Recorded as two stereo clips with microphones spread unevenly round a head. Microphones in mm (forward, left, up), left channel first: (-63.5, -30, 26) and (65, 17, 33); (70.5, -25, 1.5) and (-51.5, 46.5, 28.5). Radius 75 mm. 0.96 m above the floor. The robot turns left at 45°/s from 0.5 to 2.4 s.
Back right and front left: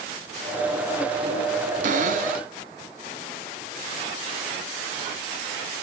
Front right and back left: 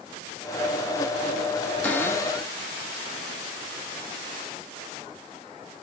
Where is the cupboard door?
45° left, 1.6 m; by 2.5 s 20° left, 1.6 m.